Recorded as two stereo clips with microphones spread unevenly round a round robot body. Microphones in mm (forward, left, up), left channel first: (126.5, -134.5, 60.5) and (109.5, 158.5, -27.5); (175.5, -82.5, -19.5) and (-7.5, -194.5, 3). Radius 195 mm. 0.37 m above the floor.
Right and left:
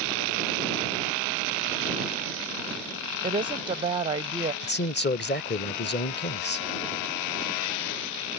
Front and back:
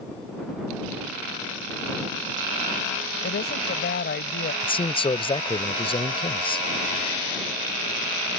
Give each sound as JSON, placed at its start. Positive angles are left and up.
{"t": 3.2, "sound": "a woman speaking", "azimuth_deg": 35}
{"t": 4.6, "sound": "a man speaking", "azimuth_deg": -25}